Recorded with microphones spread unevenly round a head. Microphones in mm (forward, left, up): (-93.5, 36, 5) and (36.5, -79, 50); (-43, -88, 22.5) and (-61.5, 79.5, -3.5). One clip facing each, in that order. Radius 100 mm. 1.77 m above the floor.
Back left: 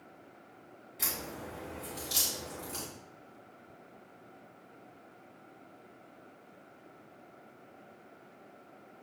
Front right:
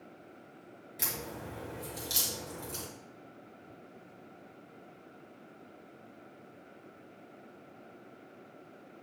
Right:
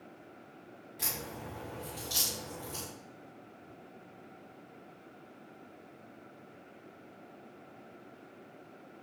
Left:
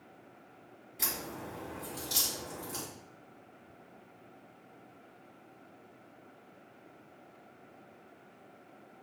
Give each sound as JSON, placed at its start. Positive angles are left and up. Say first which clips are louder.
{"t": 1.0, "sound": "a crack", "louder": "even, left 1 dB", "azimuth_deg": 5, "distance_m": 4.0}